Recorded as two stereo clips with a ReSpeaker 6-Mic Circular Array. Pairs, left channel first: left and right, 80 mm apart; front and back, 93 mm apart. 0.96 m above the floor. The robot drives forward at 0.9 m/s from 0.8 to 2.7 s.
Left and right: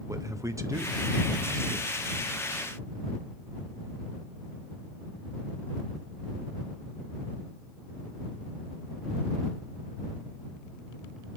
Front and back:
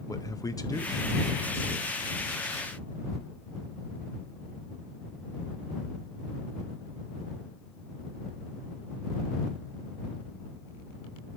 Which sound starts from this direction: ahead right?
A man speaking, at 0.1 s.